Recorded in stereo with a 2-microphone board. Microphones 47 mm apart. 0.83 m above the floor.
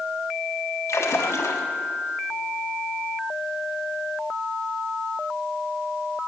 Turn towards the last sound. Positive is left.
turn(degrees=70)  # may be behind; listen again after turning